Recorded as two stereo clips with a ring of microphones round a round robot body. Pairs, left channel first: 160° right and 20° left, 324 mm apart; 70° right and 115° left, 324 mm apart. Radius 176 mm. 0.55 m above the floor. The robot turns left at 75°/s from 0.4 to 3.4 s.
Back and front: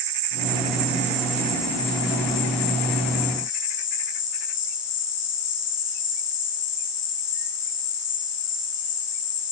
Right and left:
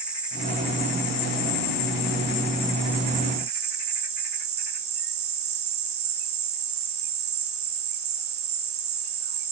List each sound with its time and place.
0.0 s an insect: 25° left, 5.5 m; by 9.5 s 160° left, 5.5 m